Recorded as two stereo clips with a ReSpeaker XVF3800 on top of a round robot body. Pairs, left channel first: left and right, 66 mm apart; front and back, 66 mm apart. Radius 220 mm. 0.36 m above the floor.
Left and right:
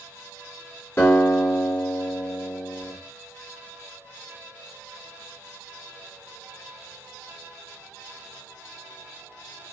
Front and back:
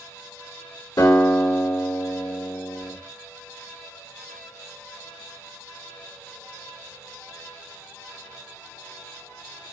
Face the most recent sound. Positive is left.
turn(degrees=30)